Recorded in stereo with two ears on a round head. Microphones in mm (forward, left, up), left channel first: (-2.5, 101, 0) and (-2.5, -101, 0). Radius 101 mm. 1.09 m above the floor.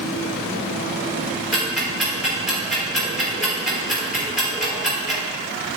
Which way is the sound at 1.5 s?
Centre (ahead or behind).